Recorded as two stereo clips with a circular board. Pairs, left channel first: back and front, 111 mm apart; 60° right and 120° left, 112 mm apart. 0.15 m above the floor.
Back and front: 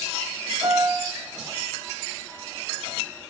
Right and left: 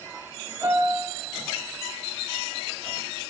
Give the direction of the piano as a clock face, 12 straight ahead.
10 o'clock.